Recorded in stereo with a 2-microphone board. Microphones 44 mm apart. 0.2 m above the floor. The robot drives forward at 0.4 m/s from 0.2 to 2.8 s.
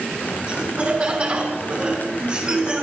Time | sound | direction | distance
0.5 | laughter | 40° right (ahead or behind) | 2 m